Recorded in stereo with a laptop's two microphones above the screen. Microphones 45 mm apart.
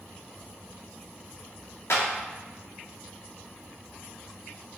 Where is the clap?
75° left (ahead or behind), 1.7 m.